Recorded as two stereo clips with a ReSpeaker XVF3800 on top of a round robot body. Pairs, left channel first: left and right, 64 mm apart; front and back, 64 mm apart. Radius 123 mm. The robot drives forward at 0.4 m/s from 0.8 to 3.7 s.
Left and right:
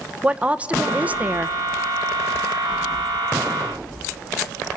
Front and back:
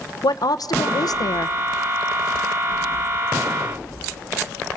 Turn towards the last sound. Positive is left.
turn(degrees=-140)